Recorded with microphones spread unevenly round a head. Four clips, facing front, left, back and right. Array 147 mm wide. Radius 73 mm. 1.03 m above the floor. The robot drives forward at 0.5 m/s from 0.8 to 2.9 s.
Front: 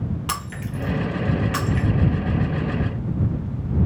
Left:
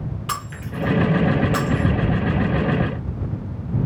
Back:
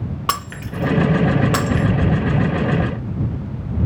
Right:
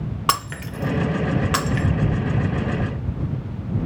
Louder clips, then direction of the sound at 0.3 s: Right 7 dB, back 6 dB; 120° right.